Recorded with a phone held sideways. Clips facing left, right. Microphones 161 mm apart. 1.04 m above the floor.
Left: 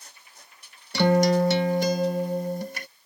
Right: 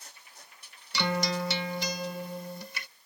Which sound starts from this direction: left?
A guitar, at 0.9 s.